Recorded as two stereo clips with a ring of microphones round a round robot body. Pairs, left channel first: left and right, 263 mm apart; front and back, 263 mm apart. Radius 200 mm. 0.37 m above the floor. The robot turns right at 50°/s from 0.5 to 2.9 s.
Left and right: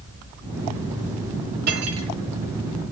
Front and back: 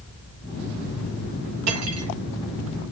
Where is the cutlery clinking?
155° right, 1.6 m; by 2.1 s 130° right, 1.6 m.